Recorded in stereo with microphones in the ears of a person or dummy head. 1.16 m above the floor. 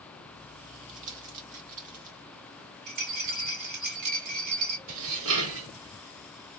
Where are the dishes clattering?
75° right (ahead or behind), 2 m.